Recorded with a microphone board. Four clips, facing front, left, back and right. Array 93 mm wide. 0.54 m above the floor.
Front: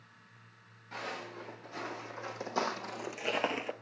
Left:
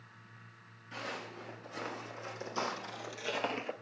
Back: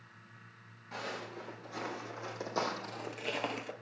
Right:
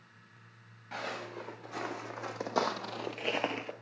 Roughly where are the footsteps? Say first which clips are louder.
Right 3 dB, even; right.